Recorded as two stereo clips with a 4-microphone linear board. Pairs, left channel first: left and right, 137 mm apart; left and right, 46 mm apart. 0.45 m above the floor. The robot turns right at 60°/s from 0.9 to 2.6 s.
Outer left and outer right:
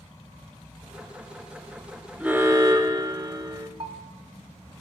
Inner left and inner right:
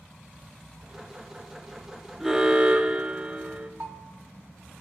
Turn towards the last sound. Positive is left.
turn(degrees=-45)  # may be behind; listen again after turning